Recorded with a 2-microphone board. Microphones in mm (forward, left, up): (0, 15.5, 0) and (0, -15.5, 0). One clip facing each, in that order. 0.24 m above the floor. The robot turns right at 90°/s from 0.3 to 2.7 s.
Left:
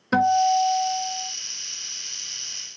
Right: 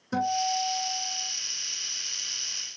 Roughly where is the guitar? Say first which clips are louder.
Left 9 dB; ahead left.